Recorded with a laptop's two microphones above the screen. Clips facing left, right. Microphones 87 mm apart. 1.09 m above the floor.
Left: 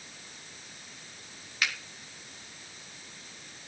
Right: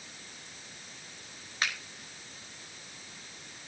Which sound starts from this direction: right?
A finger snap, at 1.6 s.